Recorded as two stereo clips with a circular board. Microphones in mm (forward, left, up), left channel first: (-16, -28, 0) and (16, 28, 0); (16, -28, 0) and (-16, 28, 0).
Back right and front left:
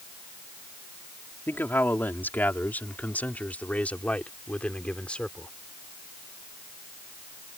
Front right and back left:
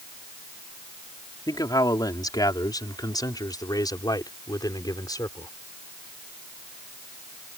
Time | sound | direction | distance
1.5 | a man speaking | 65° right | ?